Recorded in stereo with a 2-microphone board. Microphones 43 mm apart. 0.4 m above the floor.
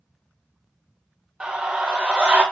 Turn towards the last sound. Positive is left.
turn(degrees=-35)  # may be behind; listen again after turning